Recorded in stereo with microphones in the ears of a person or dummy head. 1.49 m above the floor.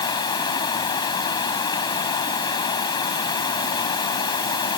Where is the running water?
25° left (ahead or behind).